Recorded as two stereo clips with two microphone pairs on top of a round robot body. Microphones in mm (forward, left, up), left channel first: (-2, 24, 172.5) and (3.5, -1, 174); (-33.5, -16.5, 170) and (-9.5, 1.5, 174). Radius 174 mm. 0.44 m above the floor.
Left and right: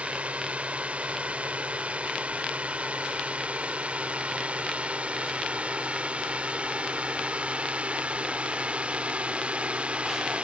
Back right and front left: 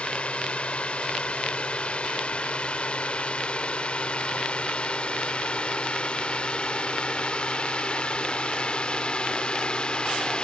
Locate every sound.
0.0 s a drone: 105° right; by 10.4 s 100° right